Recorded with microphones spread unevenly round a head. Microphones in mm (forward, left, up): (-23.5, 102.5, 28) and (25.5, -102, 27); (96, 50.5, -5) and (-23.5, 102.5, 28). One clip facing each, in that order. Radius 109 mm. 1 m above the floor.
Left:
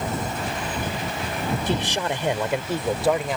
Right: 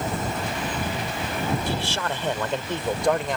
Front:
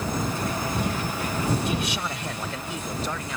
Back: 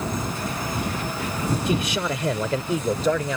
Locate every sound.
1.7 s a man speaking: 175° left; by 3.4 s 170° right